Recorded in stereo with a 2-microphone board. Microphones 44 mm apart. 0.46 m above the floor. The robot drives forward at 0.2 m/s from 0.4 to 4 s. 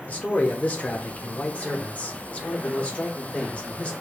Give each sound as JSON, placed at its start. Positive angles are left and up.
{"t": 0.1, "sound": "a man speaking", "side_deg": 35, "distance_m": 0.9}